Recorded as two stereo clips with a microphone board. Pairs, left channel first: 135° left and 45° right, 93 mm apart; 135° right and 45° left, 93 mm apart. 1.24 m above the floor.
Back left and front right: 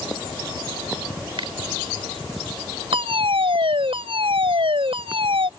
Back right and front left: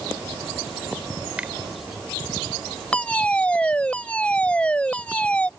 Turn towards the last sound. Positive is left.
turn(degrees=-60)